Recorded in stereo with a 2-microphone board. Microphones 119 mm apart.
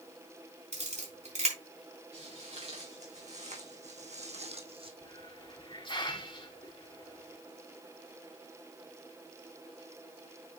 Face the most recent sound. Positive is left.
turn(degrees=45)  # may be behind; listen again after turning